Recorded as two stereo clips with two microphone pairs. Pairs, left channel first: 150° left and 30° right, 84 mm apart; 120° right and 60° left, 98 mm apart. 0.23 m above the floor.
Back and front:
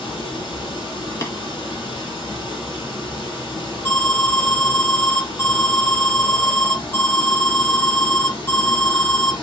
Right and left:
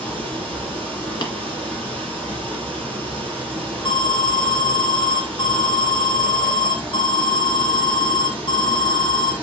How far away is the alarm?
About 1.7 m.